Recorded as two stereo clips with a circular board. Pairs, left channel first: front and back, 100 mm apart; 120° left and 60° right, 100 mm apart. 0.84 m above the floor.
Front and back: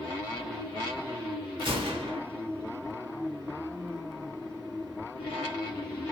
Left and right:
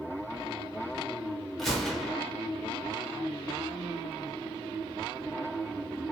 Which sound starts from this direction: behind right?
A gunshot, at 1.6 s.